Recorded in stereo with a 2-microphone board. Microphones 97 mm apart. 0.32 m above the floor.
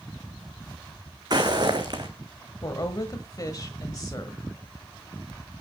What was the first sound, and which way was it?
Footsteps, 45° right (ahead or behind).